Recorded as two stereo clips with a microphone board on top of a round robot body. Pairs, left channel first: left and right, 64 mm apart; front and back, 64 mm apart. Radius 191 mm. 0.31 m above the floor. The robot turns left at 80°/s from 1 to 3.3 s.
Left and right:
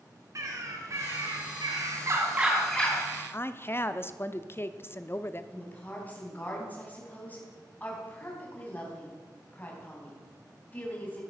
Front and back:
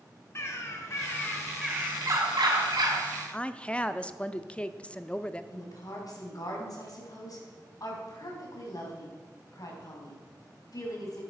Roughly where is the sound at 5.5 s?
Ahead left.